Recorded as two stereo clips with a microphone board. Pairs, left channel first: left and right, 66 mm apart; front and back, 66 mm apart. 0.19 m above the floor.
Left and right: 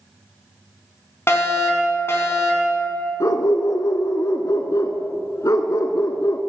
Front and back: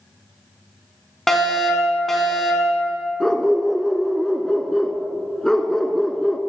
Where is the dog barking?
80° left, 0.9 m.